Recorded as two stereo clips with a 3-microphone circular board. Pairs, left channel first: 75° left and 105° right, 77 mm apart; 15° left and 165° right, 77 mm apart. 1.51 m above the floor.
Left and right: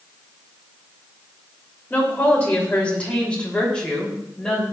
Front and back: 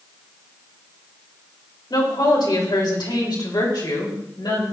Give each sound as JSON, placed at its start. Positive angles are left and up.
{"t": 1.9, "sound": "a woman speaking", "azimuth_deg": 10, "distance_m": 5.0}